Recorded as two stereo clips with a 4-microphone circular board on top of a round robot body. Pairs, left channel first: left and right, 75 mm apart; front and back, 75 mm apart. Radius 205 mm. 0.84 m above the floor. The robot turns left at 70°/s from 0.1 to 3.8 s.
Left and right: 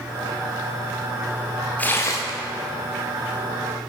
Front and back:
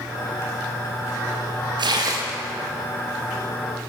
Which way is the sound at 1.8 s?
165° left.